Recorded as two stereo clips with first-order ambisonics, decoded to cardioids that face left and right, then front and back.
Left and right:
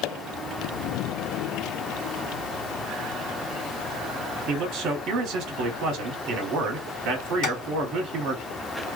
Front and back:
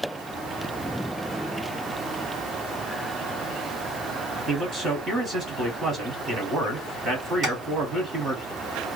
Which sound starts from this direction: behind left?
Tapping, at 7.4 s.